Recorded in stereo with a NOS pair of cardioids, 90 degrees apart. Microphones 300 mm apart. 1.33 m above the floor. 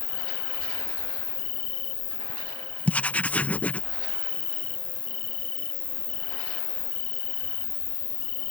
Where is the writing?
5° left.